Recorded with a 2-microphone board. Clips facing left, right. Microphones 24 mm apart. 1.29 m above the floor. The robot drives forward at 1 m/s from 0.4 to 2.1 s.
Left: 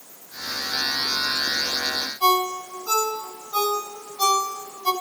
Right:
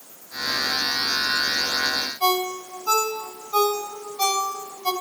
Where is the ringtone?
35° right (ahead or behind), 4.5 m.